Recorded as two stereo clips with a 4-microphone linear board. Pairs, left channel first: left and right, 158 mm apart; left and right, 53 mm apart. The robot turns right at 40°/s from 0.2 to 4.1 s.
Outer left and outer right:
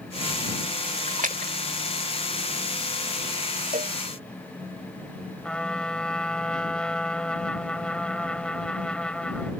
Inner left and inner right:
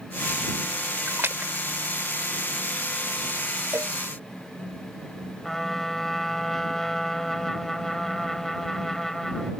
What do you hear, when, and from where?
1.1 s a splash: 55° right (ahead or behind)
3.7 s a cowbell: 60° right (ahead or behind); by 4.0 s 55° right (ahead or behind)
5.4 s a trumpet: 5° left (ahead or behind)